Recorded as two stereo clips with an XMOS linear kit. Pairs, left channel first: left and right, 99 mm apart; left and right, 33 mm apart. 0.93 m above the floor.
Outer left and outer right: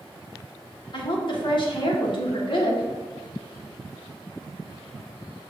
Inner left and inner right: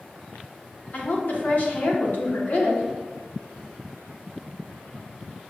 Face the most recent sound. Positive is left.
turn(degrees=50)  # may be behind; listen again after turning